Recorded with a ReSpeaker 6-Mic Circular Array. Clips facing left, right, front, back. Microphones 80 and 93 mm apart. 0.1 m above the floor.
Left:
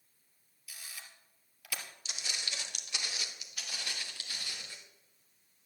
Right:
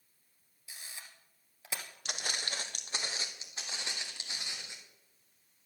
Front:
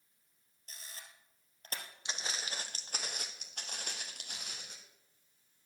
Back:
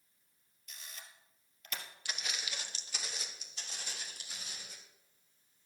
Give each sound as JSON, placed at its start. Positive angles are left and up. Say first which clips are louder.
{"t": 0.7, "sound": "a camera shutter", "louder": "even, even", "azimuth_deg": -35, "distance_m": 2.0}
{"t": 2.0, "sound": "footsteps", "louder": "right 5 dB, front 2 dB", "azimuth_deg": -65, "distance_m": 1.2}